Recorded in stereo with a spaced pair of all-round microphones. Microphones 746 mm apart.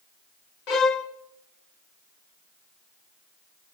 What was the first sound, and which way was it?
A violin, 65° left (ahead or behind).